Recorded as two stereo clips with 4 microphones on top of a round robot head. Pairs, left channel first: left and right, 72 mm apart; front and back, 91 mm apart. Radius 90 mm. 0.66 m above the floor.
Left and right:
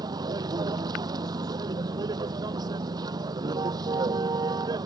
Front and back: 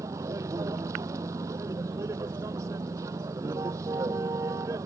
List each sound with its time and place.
0.0 s a vehicle: 120° right